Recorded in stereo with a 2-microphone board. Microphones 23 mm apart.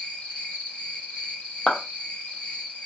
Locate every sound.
0.0 s an insect: 75° left (ahead or behind), 1.2 m
1.7 s a clap: 45° left (ahead or behind), 0.9 m